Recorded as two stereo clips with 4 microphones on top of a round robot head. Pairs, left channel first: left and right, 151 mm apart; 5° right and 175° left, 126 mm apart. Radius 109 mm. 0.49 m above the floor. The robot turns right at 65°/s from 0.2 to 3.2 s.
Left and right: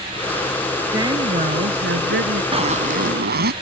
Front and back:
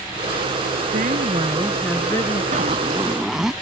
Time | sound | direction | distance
0.9 | a woman speaking | 160° right | ?
2.5 | a zipper | 145° right | ?